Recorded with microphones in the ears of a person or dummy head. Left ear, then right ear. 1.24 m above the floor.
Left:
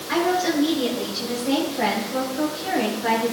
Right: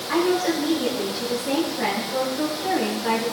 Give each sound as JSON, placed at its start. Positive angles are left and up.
{"t": 0.1, "sound": "a woman speaking", "side_deg": 30, "distance_m": 4.0}